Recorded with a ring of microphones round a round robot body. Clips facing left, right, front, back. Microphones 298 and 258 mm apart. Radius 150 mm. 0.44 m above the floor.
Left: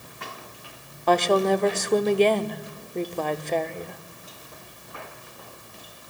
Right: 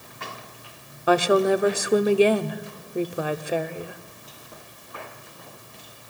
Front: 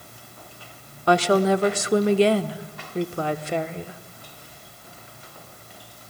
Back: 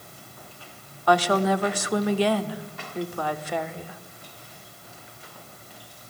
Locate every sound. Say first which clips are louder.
1.1 s a woman speaking: right 2 dB, front 3 dB; 20° right, 0.9 m